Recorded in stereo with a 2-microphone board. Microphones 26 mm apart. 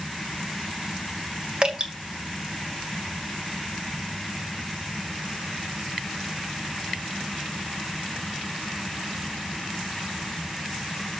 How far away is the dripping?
About 1.9 m.